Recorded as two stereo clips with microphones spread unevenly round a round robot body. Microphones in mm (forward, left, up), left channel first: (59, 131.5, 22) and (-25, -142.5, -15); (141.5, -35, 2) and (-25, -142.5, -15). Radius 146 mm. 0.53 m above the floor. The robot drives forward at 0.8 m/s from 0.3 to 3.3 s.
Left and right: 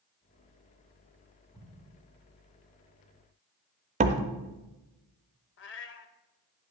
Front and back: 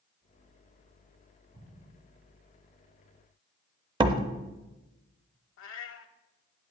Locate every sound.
1.5 s an explosion: 170° left, 1.9 m
4.0 s a door slam: 120° right, 0.5 m
5.6 s a cat meowing: 20° left, 0.5 m